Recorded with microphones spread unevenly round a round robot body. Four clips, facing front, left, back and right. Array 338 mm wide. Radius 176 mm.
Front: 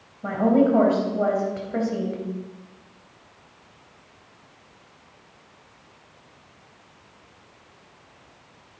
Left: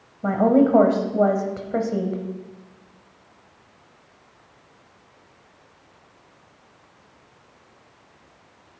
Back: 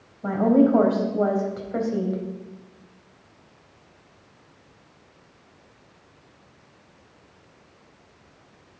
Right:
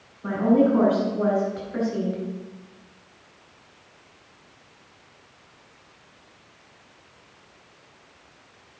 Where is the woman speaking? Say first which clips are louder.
Left 2 dB, back 1 dB; 75° left, 3.5 m.